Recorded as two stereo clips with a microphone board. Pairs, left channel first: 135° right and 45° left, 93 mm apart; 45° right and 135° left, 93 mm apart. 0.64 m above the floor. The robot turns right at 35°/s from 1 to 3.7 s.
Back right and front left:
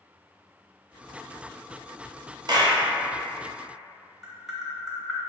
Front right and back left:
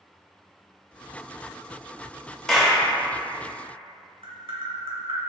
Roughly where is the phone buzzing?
I don't hear a phone buzzing.